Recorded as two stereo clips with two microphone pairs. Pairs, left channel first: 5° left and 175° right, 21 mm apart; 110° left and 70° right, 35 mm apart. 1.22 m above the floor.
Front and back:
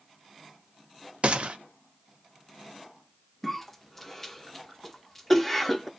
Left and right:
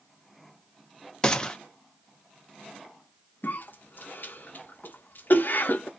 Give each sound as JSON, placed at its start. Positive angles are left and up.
{"t": 1.2, "sound": "a gunshot", "azimuth_deg": 170, "distance_m": 0.5}
{"t": 3.4, "sound": "a cough", "azimuth_deg": 80, "distance_m": 0.7}